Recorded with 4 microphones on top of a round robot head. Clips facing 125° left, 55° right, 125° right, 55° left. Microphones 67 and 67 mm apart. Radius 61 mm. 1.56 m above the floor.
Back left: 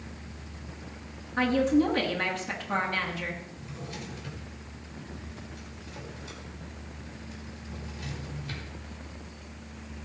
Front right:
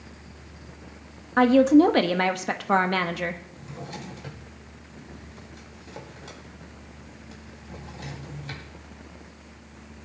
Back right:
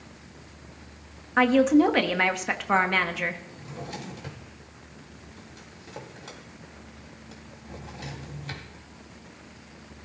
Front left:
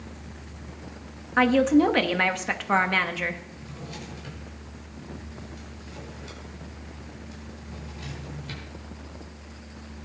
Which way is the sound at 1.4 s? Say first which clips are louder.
Front right 8 dB, even; 35° right.